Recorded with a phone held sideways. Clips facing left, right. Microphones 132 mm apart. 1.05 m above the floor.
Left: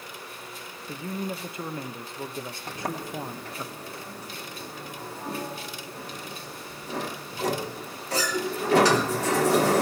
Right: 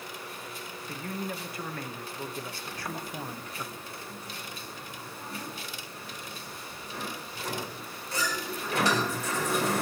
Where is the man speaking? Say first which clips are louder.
Left 4 dB; 20° left (ahead or behind), 1.0 m.